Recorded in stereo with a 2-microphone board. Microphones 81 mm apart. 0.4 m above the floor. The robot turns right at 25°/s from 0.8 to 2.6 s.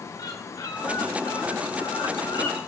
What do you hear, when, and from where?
0.2 s a bird: 55° left, 2.5 m; by 2.6 s 100° left, 2.5 m